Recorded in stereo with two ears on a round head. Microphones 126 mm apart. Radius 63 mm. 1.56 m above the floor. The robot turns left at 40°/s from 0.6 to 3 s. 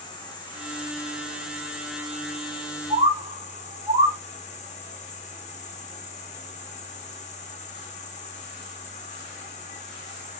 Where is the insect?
145° left, 0.7 m; by 10.4 s 50° left, 0.7 m.